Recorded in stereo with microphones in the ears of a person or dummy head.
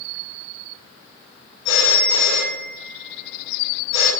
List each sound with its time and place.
1.6 s a phone ringing: 75° left (ahead or behind), 2 m